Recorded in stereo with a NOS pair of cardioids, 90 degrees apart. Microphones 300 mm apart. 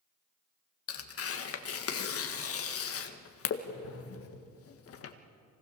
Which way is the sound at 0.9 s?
50° left.